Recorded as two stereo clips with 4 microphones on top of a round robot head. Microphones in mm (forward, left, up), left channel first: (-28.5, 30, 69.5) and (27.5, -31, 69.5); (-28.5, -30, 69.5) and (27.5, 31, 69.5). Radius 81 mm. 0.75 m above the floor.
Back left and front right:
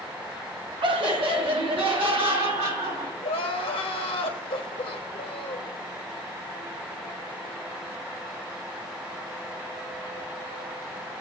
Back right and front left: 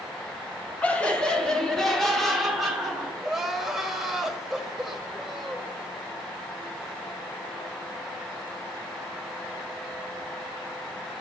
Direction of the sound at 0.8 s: 60° right.